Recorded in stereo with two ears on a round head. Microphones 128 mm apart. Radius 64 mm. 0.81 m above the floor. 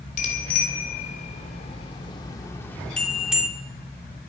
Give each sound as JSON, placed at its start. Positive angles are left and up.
{"t": 0.2, "sound": "a bicycle bell", "side_deg": 65, "distance_m": 2.5}